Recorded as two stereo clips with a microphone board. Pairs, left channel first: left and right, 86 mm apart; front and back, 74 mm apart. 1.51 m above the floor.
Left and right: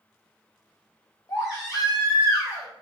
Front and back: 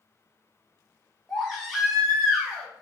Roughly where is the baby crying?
Left.